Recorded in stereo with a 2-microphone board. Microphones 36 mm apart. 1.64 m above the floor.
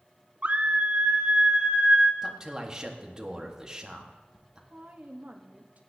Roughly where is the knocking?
No knocking in this recording.